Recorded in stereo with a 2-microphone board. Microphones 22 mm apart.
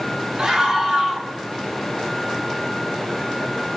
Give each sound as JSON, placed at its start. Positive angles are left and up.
{"t": 0.4, "sound": "a scream", "side_deg": -35, "distance_m": 4.0}